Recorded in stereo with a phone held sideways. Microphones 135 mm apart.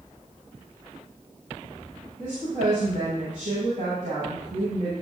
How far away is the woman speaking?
About 8 m.